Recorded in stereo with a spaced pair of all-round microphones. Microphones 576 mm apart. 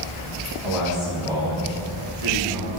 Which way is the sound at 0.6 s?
50° right (ahead or behind).